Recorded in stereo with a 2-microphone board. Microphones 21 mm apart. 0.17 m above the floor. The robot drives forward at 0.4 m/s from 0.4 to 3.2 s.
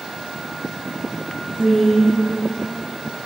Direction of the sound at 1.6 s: 10° right (ahead or behind).